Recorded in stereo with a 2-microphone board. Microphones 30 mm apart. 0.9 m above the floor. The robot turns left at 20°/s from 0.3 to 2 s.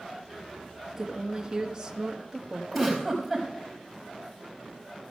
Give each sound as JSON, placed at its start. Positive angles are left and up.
{"t": 0.9, "sound": "a woman speaking", "side_deg": -10, "distance_m": 1.3}
{"t": 2.7, "sound": "a giggle", "side_deg": 5, "distance_m": 4.0}